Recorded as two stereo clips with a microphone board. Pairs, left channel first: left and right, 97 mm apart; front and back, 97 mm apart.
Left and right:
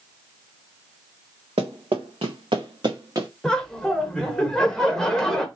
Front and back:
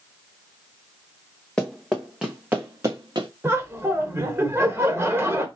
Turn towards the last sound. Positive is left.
turn(degrees=165)